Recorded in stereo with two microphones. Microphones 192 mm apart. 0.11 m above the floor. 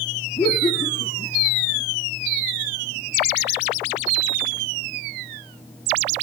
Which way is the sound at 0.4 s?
15° left (ahead or behind).